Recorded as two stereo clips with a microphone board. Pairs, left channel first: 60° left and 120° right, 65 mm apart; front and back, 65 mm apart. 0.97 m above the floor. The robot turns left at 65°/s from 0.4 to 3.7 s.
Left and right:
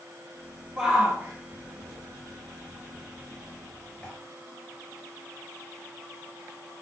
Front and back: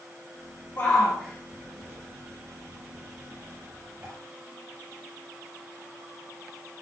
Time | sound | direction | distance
0.8 | a shout | 45° right | 1.9 m